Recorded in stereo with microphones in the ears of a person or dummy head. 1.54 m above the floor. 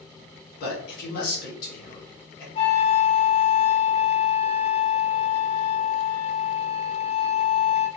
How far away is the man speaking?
About 1.6 m.